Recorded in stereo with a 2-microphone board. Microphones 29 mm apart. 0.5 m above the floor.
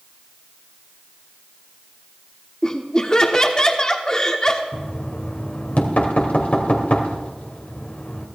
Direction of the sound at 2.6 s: 25° left (ahead or behind).